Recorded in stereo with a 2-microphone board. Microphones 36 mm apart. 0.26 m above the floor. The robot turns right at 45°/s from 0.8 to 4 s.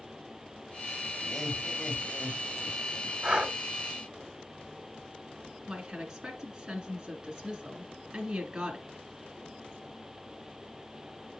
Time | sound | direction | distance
1.2 | laughter | 15° left | 1.4 m
3.2 | breathing | 35° right (ahead or behind) | 0.7 m
5.7 | a woman speaking | 20° right (ahead or behind) | 2.5 m